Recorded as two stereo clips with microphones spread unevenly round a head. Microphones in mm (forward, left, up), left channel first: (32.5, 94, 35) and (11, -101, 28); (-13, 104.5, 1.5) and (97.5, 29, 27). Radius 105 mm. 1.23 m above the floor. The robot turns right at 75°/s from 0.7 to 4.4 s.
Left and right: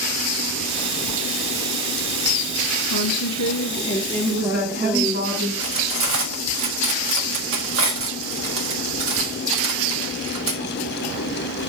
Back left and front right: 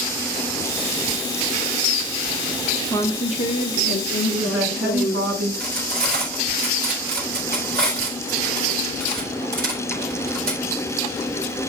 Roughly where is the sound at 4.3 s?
Ahead right.